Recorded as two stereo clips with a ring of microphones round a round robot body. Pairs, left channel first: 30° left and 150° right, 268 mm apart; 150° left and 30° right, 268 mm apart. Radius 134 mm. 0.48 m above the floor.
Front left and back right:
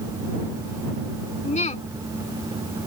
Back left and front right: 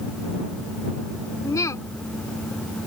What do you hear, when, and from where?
1.4 s a woman speaking: 80° left